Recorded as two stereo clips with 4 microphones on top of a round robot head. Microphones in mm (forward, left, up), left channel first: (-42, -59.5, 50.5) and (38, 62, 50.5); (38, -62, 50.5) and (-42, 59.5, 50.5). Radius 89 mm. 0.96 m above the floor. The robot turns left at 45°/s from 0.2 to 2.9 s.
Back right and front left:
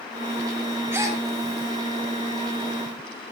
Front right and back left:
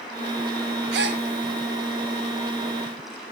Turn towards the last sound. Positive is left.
turn(degrees=45)